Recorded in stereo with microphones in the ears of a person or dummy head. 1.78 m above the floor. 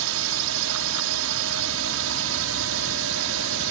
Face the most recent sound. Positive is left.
turn(degrees=-80)